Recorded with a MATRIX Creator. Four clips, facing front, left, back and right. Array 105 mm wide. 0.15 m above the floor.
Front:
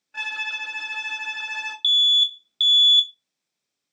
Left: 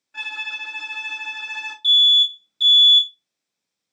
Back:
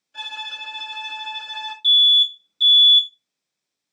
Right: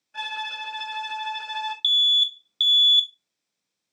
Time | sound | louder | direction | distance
0.1 | a violin | right 3 dB, front 2 dB | 5° left | 1.6 m
1.8 | an alarm | left 5 dB, back 4 dB | 135° left | 0.8 m